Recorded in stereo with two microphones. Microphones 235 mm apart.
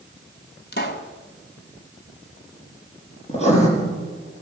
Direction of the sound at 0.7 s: 45° left (ahead or behind).